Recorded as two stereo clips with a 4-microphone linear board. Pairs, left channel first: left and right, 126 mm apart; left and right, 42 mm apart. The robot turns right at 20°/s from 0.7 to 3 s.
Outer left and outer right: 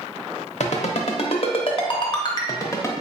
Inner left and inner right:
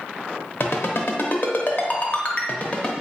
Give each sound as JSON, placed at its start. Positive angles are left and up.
{"t": 0.6, "sound": "a ringtone", "side_deg": 65, "distance_m": 0.7}